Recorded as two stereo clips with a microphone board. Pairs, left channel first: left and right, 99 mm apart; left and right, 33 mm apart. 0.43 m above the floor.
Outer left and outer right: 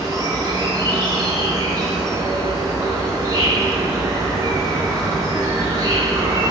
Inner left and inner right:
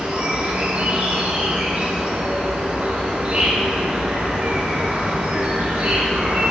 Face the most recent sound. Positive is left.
turn(degrees=-40)  # may be behind; listen again after turning